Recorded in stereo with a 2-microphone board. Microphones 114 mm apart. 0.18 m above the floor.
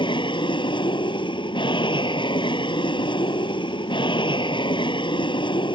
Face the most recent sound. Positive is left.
turn(degrees=45)  # may be behind; listen again after turning